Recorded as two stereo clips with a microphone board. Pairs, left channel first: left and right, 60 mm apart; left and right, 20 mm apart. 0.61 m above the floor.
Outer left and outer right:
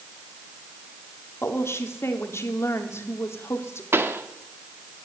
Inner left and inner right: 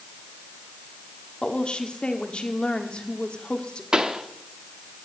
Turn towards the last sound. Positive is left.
turn(degrees=-40)  # may be behind; listen again after turning